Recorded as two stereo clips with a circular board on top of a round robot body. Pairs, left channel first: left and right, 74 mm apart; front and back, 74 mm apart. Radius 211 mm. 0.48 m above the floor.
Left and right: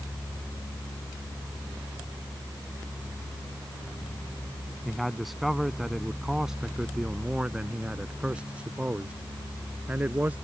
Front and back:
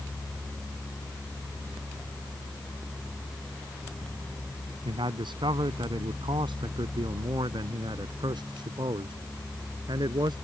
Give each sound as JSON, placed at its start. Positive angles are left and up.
{"t": 4.8, "sound": "a man speaking", "azimuth_deg": 180}